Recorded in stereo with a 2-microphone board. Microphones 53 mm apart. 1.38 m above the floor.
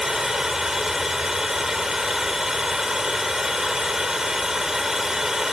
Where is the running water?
10° right (ahead or behind).